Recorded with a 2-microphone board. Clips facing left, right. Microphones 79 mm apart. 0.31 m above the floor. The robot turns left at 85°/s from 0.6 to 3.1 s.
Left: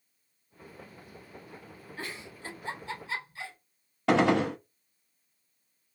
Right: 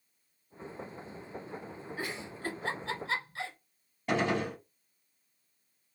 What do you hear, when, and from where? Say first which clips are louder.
2.0 s a giggle: right 2 dB; 10° right (ahead or behind), 1.4 m; by 3.6 s 75° right (ahead or behind), 1.4 m
4.1 s a gunshot: left 6 dB; 80° left, 0.6 m